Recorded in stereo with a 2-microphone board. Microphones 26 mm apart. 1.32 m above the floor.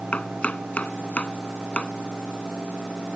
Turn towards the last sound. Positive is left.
turn(degrees=55)  # may be behind; listen again after turning